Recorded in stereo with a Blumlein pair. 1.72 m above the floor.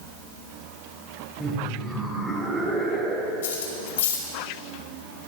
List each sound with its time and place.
1.4 s laughter: straight ahead, 7 m; by 3.3 s 15° right, 5.5 m
3.4 s cutlery clinking: 60° left, 6 m